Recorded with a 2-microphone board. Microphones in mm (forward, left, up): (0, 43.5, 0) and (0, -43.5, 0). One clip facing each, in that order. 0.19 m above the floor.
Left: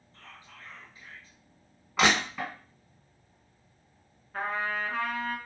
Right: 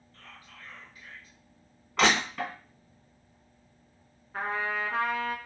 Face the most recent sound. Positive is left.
turn(degrees=-5)  # may be behind; listen again after turning